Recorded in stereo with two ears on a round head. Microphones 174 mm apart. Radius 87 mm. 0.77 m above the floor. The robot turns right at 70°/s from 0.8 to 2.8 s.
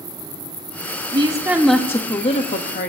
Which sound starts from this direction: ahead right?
A woman speaking, at 1.1 s.